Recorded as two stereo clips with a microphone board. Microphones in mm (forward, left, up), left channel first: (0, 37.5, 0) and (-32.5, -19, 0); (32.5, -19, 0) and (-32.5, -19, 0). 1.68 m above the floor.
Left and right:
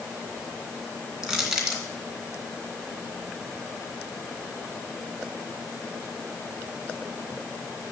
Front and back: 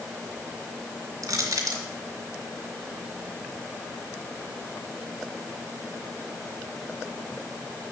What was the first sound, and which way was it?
Crushing, 165° left.